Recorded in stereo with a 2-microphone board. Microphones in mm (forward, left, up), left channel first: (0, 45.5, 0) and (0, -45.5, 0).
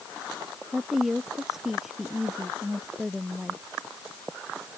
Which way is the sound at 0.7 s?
5° right (ahead or behind).